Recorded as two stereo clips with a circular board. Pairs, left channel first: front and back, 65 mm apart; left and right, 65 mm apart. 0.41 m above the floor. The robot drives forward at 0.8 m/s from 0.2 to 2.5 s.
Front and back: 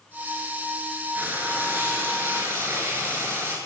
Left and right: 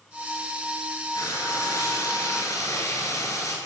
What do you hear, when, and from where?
1.1 s frying: 115° left, 7.5 m; by 3.5 s 120° left, 8 m